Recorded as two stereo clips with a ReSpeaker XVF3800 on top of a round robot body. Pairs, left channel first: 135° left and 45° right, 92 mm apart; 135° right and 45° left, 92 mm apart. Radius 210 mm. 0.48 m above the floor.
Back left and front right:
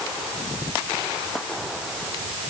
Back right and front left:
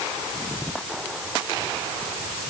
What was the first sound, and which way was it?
Only background noise.